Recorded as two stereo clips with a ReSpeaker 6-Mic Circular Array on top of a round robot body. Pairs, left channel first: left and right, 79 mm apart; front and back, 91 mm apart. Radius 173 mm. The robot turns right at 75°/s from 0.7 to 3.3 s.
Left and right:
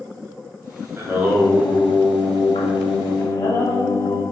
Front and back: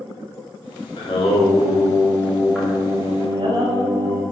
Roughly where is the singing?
Ahead right.